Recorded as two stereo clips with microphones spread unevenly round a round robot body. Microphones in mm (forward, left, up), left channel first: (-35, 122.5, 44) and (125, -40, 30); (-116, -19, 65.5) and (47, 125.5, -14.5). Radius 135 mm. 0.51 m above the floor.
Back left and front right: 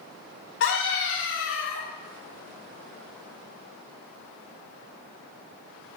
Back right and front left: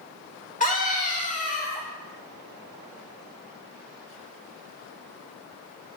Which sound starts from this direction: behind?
A scream, at 0.6 s.